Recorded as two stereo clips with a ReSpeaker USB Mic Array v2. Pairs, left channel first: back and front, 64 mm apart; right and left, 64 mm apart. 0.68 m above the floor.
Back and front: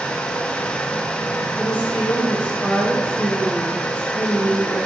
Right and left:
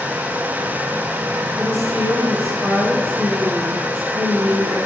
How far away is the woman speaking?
About 4 m.